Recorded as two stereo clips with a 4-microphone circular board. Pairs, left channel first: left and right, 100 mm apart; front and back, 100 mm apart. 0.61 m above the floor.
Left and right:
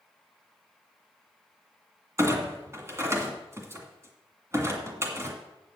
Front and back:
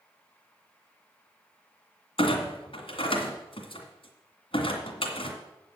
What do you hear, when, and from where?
2.2 s a clunk: 25° right, 1.9 m